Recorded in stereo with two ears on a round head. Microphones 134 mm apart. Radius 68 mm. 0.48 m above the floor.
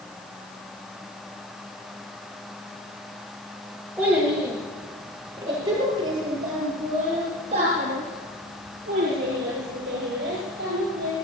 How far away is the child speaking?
About 8.5 m.